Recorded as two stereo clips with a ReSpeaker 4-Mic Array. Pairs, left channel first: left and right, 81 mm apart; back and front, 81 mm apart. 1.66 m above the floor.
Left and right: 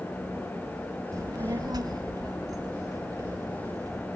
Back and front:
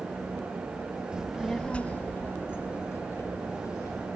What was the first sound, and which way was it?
A child speaking, 75° right.